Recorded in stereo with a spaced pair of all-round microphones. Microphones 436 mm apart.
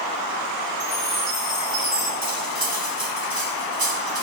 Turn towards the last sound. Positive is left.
turn(degrees=-50)  # may be behind; listen again after turning